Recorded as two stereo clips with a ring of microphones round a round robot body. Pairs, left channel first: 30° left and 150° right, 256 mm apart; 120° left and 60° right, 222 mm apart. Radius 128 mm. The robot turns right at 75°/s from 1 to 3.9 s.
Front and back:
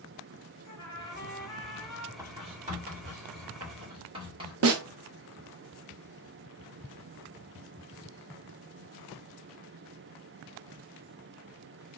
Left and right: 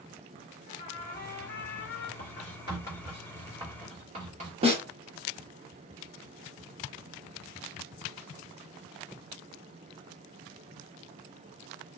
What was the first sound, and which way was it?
A trumpet, 65° left.